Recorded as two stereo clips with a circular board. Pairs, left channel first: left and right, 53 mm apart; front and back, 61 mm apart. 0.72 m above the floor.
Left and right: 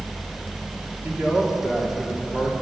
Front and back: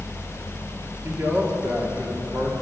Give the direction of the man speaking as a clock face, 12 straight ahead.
5 o'clock.